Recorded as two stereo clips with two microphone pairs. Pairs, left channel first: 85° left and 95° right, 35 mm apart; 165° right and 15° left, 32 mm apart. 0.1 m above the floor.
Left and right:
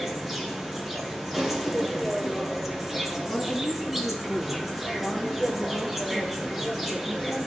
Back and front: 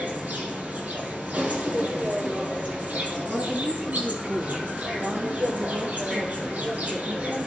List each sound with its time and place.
0.0 s an insect: 10° right, 2.0 m
3.3 s a woman speaking: straight ahead, 2.5 m